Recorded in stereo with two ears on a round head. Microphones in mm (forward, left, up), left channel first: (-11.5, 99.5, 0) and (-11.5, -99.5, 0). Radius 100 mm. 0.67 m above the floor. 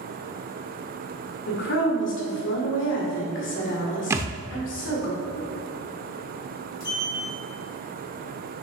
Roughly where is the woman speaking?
Left.